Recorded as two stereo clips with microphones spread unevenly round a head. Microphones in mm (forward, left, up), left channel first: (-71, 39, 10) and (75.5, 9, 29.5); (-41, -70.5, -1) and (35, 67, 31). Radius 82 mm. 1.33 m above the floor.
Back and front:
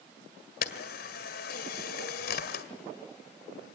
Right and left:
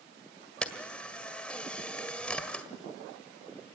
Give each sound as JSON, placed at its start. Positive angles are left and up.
{"t": 0.6, "sound": "a camera shutter", "azimuth_deg": 150, "distance_m": 1.8}